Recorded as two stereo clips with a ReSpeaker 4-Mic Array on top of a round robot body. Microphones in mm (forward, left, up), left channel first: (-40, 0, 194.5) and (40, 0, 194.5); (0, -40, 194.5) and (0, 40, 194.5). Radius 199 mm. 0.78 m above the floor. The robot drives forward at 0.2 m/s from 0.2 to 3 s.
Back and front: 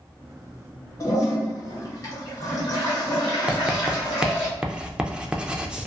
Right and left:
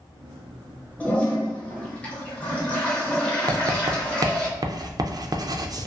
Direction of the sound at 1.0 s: 155° right.